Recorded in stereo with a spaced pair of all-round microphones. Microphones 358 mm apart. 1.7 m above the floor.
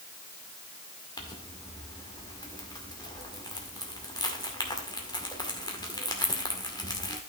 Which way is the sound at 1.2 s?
10° left (ahead or behind).